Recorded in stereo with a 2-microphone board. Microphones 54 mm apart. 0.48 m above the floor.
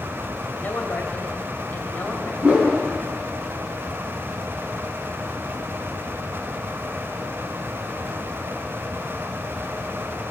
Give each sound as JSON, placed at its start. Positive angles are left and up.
{"t": 0.6, "sound": "a woman speaking", "side_deg": 35, "distance_m": 2.0}
{"t": 2.4, "sound": "a whoosh", "side_deg": -20, "distance_m": 5.0}